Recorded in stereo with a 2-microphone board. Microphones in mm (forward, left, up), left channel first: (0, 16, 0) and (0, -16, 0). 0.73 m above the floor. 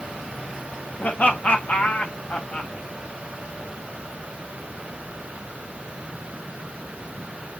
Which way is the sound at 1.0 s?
50° left (ahead or behind).